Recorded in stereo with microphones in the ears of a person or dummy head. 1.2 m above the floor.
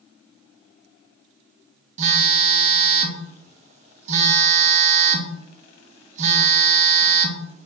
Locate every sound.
2.0 s a phone buzzing: 30° right (ahead or behind), 0.6 m